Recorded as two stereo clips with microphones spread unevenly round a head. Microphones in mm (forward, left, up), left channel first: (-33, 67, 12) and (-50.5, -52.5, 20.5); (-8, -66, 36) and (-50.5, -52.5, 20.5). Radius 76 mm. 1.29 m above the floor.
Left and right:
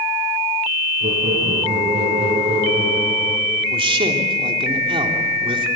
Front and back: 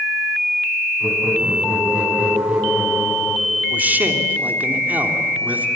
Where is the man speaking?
145° right, 3.5 m.